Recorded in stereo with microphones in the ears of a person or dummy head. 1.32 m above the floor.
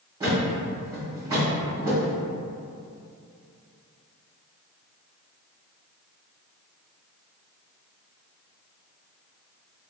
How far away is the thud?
About 1.7 m.